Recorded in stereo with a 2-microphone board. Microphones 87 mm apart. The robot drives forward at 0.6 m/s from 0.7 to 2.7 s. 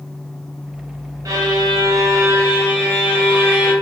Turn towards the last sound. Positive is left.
turn(degrees=-30)  # may be behind; listen again after turning